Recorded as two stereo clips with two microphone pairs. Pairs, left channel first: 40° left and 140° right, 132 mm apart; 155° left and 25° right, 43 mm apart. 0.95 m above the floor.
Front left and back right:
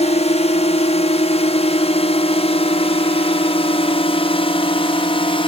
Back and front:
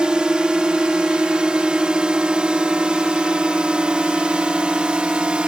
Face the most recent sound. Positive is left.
turn(degrees=30)